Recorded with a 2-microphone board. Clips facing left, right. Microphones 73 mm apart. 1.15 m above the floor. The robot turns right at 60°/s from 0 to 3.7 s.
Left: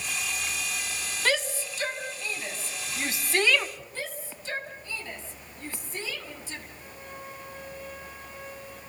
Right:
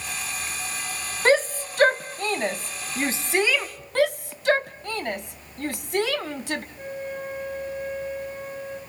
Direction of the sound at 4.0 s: 65° right (ahead or behind).